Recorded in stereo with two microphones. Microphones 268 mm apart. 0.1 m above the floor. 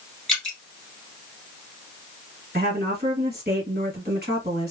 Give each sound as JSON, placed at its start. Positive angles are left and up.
{"t": 0.3, "sound": "dripping", "side_deg": 5, "distance_m": 1.3}
{"t": 2.5, "sound": "a woman speaking", "side_deg": -35, "distance_m": 2.0}